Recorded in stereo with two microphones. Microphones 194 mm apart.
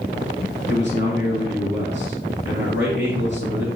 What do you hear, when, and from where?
0.7 s a man speaking: 60° left (ahead or behind), 3 m